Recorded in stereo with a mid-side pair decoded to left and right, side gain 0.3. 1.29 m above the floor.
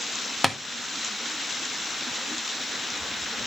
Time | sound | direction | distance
0.4 | tapping | straight ahead | 1.4 m